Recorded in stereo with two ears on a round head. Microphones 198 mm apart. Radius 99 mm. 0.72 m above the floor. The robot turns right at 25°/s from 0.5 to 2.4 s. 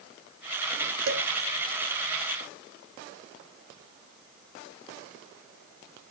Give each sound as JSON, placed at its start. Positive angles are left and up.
{"t": 1.1, "sound": "dishes clattering", "side_deg": -70, "distance_m": 2.5}